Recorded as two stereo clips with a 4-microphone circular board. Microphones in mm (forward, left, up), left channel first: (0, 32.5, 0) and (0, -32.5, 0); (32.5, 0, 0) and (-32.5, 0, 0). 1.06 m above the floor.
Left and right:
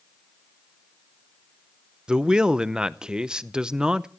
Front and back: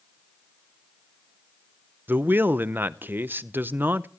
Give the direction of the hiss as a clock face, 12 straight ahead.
I don't hear a hiss.